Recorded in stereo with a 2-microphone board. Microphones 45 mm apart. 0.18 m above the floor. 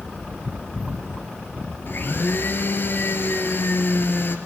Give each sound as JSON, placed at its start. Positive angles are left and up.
{"t": 1.9, "sound": "a blender", "side_deg": 55, "distance_m": 3.0}